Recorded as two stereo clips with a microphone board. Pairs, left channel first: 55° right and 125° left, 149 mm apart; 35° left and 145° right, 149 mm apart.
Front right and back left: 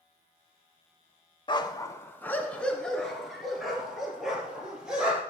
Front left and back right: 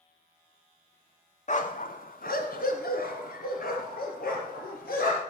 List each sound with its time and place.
1.5 s a dog barking: straight ahead, 0.7 m; by 5.2 s 40° left, 3.5 m